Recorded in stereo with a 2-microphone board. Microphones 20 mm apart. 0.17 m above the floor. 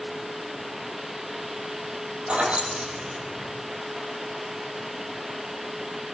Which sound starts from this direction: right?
Keys jangling, at 2.3 s.